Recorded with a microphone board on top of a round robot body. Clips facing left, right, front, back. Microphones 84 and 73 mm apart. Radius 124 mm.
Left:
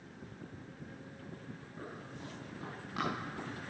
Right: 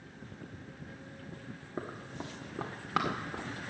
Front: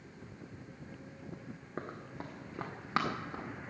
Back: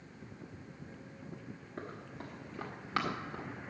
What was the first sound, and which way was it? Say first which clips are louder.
Running footsteps: right 7 dB, front 3 dB; 55° right.